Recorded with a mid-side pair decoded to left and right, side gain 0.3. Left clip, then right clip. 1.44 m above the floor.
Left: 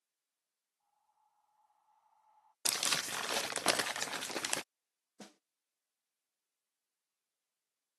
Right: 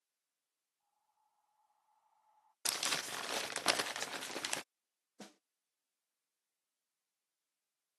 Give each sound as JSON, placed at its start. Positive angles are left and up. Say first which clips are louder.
{"t": 0.8, "sound": "breathing", "louder": "left 4 dB", "azimuth_deg": 40}
{"t": 2.6, "sound": "crumpling", "louder": "left 3 dB", "azimuth_deg": 40}
{"t": 5.2, "sound": "a snare drum", "louder": "even", "azimuth_deg": 0}